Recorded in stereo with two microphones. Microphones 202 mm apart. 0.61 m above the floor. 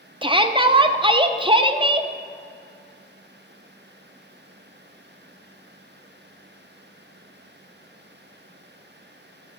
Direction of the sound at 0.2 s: 25° right (ahead or behind).